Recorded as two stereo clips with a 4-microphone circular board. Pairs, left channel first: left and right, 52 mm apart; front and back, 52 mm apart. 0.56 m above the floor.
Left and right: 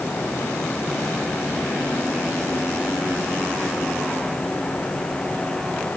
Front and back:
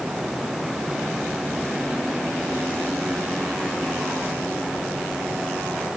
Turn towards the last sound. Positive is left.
No sound to turn to.